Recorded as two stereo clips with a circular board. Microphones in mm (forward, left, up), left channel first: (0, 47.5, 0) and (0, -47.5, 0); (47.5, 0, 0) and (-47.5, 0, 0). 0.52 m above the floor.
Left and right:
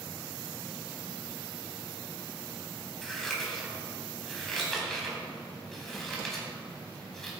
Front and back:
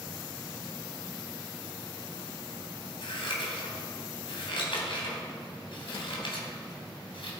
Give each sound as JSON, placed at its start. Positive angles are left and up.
{"t": 3.0, "sound": "scissors", "azimuth_deg": 5, "distance_m": 3.5}